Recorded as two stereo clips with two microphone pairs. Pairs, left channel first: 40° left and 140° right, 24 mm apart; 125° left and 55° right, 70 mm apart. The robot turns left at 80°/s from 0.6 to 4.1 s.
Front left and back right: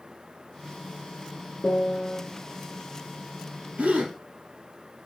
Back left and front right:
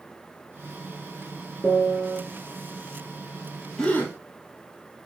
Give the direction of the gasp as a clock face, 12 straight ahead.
5 o'clock.